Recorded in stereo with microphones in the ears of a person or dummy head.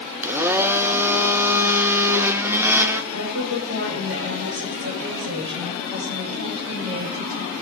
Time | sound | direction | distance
0.2 | a blender | 15° right (ahead or behind) | 0.8 m
3.1 | a woman speaking | 60° right (ahead or behind) | 4.5 m